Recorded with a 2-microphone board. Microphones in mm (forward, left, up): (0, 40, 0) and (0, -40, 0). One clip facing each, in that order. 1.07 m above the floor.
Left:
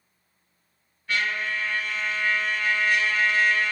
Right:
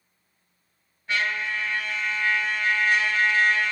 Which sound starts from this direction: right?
A trumpet, at 1.1 s.